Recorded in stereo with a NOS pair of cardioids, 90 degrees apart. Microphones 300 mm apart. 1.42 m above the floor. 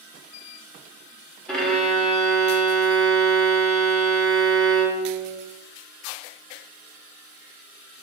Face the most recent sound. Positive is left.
turn(degrees=0)